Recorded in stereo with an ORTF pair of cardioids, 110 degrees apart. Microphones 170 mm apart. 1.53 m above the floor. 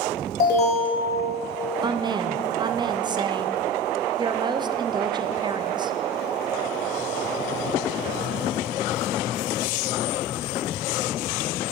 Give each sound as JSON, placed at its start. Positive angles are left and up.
{"t": 0.4, "sound": "an alarm", "azimuth_deg": 60, "distance_m": 3.5}
{"t": 1.8, "sound": "a woman speaking", "azimuth_deg": -25, "distance_m": 0.6}